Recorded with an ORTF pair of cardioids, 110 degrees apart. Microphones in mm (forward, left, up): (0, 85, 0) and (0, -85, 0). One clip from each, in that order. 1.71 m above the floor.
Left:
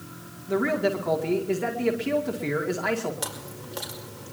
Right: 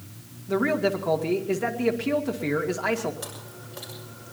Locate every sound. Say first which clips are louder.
0.5 s a man speaking: even; 10° right, 2 m
3.2 s chewing: left 4 dB; 45° left, 5 m